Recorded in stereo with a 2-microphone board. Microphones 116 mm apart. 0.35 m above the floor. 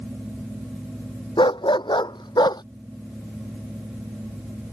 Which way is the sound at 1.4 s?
40° left (ahead or behind).